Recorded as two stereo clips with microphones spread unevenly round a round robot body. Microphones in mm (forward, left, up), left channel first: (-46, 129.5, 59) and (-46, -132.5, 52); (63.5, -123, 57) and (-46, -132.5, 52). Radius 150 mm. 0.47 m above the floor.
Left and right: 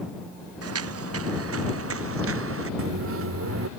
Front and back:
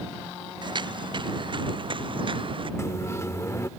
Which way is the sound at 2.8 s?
60° right.